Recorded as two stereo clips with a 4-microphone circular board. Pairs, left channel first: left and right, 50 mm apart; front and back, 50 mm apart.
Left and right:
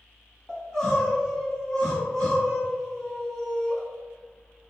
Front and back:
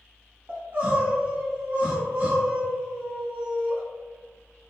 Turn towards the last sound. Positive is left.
turn(degrees=165)